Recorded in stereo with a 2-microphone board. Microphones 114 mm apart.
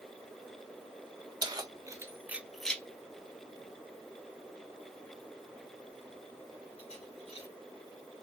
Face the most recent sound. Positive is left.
turn(degrees=65)  # may be behind; listen again after turning